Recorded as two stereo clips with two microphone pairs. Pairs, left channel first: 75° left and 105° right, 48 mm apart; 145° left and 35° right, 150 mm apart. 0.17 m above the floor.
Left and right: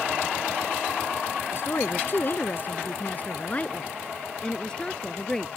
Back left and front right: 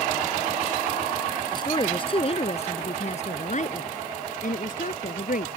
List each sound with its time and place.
1.5 s a woman speaking: 90° left; by 5.5 s 155° left